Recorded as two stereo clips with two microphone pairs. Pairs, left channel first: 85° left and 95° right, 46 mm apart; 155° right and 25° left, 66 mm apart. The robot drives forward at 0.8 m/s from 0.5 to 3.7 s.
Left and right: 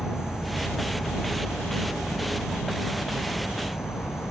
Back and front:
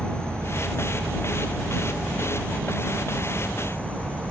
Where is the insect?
75° left; by 4.3 s 85° left.